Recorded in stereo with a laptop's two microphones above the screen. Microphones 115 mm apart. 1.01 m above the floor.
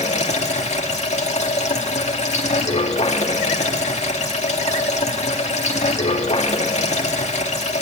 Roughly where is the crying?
No crying in this recording.